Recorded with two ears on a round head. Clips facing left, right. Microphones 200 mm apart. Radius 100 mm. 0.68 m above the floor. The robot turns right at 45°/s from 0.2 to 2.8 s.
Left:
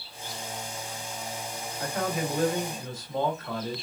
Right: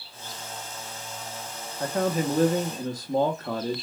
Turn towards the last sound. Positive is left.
turn(degrees=-85)